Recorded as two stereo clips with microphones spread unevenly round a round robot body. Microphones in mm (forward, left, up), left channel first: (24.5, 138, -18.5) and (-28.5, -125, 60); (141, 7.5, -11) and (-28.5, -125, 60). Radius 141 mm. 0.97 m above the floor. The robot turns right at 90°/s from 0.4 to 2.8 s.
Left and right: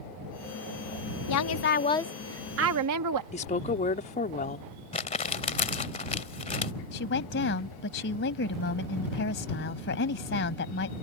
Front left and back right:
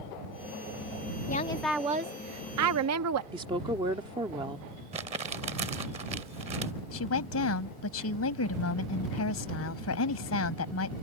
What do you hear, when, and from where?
1.3 s a woman speaking: 90° left; by 3.2 s 135° right
3.3 s a woman speaking: 140° left
4.9 s crumpling: 150° left
6.9 s a woman speaking: 25° left